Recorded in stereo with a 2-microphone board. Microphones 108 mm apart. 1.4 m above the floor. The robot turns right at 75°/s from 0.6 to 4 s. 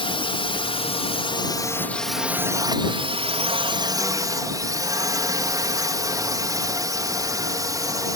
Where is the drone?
65° left; by 8.2 s 40° right.